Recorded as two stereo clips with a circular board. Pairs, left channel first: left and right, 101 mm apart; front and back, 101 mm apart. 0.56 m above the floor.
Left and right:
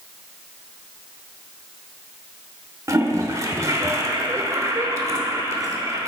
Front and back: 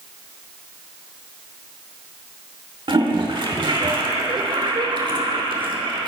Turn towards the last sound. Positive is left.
turn(degrees=-145)